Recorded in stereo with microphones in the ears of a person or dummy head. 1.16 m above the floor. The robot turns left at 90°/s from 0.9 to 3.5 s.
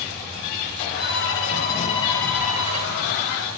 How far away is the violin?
About 2.5 m.